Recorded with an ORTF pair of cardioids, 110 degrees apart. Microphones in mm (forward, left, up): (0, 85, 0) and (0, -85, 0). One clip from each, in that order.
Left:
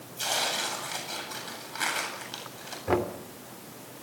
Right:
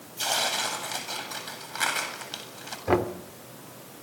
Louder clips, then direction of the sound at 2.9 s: Right 3 dB; 20° right.